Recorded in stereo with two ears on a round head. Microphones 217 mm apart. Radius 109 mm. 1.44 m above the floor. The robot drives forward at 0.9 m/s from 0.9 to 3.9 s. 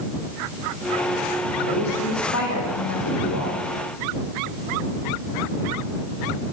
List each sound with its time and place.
1.7 s a woman speaking: 75° left (ahead or behind), 2.5 m; by 3.6 s 65° left (ahead or behind), 2.5 m